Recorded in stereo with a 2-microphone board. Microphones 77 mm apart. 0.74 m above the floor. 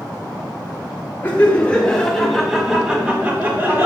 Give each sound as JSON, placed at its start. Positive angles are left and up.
{"t": 1.2, "sound": "laughter", "side_deg": 25, "distance_m": 1.7}